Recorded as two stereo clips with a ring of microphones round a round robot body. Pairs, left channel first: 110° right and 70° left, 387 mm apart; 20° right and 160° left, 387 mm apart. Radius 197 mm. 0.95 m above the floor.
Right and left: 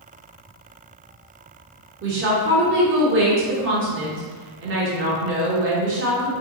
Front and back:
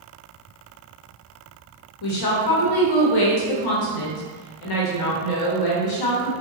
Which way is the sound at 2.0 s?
10° left.